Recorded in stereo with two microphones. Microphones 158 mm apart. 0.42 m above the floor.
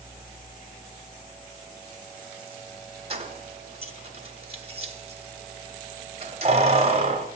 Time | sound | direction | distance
3.1 | keys jangling | 40° right (ahead or behind) | 1.2 m